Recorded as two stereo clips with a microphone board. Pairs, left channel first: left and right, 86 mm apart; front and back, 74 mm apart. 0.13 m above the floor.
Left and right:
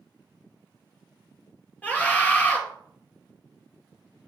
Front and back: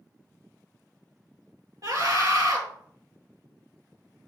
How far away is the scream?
About 2 m.